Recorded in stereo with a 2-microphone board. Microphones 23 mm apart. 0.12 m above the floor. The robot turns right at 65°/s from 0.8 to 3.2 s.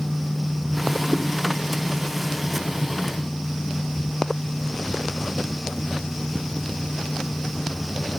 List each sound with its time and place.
1.1 s a whoosh: 20° right (ahead or behind), 4.5 m; by 1.2 s 30° right (ahead or behind), 4.5 m